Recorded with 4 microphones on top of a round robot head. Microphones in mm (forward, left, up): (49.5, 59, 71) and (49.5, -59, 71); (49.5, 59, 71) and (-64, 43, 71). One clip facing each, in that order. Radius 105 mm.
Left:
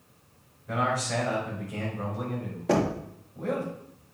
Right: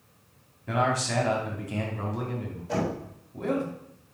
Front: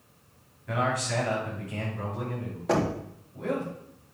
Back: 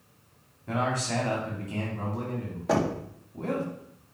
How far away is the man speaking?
About 3.5 m.